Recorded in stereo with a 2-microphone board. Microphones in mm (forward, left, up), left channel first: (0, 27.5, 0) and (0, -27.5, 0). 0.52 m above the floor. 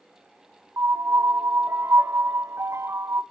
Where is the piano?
60° right (ahead or behind), 0.8 m.